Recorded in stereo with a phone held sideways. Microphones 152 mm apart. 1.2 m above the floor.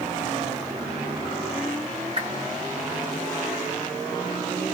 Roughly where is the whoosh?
Right.